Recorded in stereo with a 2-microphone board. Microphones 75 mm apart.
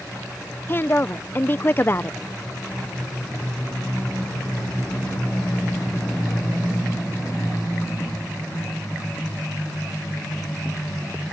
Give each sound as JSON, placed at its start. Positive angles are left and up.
{"t": 0.7, "sound": "a woman speaking", "side_deg": 30}